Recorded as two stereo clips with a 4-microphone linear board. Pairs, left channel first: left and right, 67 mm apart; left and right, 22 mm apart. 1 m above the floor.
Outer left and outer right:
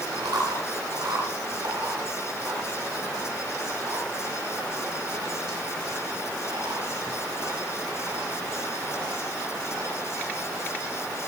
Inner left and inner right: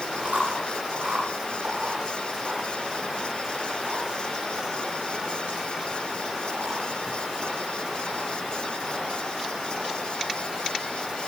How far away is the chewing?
About 9 m.